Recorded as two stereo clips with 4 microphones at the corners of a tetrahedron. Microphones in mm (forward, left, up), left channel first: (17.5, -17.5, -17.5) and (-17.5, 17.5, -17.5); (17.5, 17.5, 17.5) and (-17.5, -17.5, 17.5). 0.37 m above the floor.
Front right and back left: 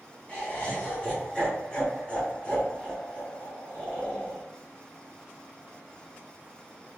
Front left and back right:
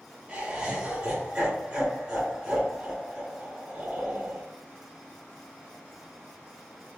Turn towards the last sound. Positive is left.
turn(degrees=-80)